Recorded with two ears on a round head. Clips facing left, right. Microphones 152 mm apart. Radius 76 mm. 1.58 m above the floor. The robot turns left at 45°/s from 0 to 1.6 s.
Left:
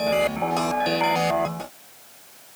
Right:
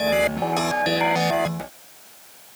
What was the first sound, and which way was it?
Only background noise.